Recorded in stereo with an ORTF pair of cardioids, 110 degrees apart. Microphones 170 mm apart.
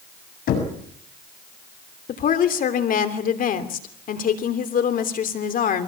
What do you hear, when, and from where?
0.5 s knocking: 60° left, 7 m
2.1 s a woman speaking: 55° left, 3 m